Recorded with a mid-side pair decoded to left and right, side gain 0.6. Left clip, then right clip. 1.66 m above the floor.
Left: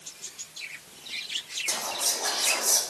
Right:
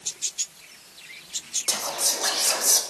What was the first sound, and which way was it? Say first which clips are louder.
Whispering: right 4 dB; 45° right.